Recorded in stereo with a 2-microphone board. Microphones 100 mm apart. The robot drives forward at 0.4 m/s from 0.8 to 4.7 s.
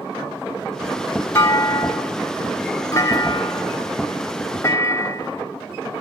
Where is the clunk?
25° left (ahead or behind), 1.4 m.